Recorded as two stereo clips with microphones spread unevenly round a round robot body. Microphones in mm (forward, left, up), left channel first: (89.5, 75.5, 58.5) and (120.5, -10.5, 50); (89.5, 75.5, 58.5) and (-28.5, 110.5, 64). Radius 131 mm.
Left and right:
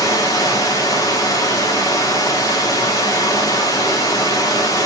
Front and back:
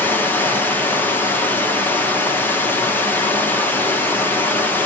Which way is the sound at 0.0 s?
55° left.